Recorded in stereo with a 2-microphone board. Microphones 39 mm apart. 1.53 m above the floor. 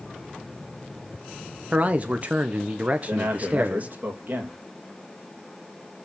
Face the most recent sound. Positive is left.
turn(degrees=-50)  # may be behind; listen again after turning